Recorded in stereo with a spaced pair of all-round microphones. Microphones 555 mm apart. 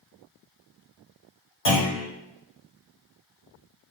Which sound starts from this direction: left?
A clunk, at 1.6 s.